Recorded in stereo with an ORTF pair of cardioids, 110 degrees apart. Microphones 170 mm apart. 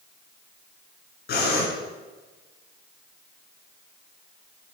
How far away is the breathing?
About 9.5 m.